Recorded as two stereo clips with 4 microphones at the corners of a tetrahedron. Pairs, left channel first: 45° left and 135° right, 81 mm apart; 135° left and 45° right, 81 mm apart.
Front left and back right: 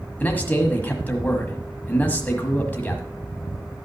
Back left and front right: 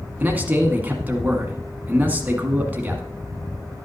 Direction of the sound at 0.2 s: Straight ahead.